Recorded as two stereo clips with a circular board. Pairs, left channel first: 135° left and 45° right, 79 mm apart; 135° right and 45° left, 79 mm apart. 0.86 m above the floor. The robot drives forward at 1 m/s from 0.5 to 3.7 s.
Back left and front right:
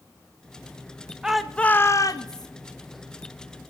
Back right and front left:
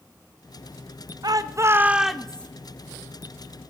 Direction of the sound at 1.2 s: 35° left.